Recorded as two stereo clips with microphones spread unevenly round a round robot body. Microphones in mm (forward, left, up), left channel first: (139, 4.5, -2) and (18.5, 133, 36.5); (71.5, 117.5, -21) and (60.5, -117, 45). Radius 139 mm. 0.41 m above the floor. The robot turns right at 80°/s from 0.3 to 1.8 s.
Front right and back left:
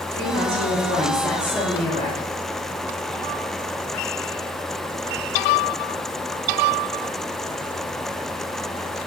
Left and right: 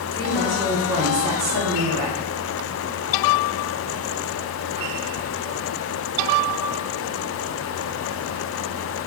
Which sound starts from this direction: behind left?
A woman speaking, at 0.1 s.